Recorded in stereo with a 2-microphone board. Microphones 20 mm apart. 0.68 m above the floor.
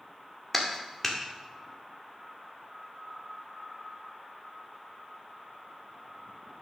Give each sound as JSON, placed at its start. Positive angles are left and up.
{"t": 0.5, "sound": "a clap", "side_deg": 10, "distance_m": 1.8}